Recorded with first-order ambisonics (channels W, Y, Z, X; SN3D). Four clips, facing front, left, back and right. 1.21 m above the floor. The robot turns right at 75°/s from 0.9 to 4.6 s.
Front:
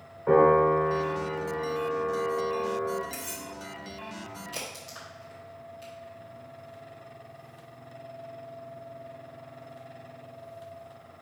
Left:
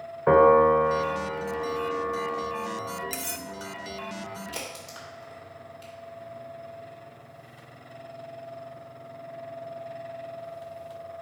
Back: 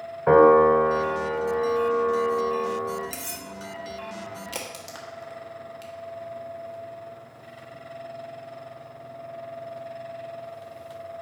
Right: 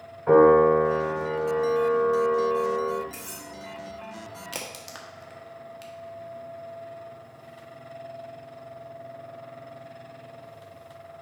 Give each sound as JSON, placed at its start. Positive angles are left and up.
{"t": 0.3, "sound": "a piano", "azimuth_deg": 140, "distance_m": 1.2}
{"t": 3.1, "sound": "cutlery clinking", "azimuth_deg": 120, "distance_m": 0.7}
{"t": 4.5, "sound": "a crack", "azimuth_deg": -130, "distance_m": 1.4}